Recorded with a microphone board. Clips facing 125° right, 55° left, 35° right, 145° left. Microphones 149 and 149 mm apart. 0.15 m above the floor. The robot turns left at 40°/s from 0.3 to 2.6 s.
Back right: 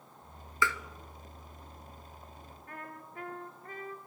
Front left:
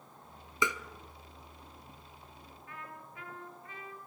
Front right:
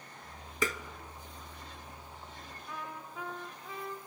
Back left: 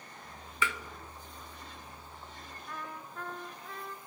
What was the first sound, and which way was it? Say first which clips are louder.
Tapping: back right 1 dB, front right 1 dB; 5° right.